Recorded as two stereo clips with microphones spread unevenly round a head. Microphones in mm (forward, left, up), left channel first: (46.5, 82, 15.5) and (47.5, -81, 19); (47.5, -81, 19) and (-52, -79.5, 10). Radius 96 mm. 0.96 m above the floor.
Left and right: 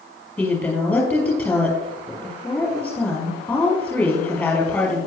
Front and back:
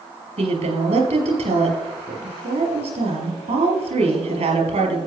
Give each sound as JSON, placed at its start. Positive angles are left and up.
{"t": 0.4, "sound": "a woman speaking", "azimuth_deg": 175, "distance_m": 5.0}